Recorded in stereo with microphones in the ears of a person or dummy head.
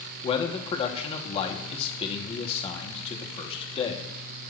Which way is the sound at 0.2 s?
30° left (ahead or behind).